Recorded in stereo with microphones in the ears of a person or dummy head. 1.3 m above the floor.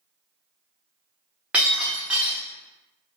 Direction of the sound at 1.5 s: 5° right (ahead or behind).